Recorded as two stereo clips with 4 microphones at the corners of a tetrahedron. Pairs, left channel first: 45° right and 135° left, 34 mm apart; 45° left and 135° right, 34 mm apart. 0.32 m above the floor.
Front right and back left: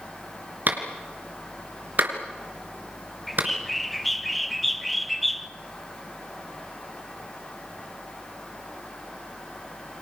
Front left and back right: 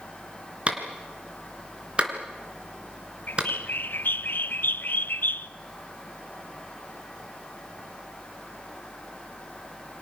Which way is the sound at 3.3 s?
45° left.